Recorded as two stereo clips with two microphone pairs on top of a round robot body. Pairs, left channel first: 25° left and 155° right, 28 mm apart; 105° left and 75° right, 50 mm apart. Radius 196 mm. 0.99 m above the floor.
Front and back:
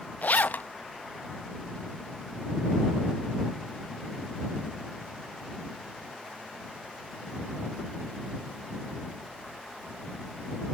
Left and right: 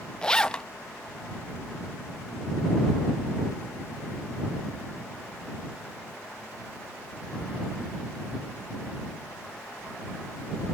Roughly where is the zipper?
Ahead left.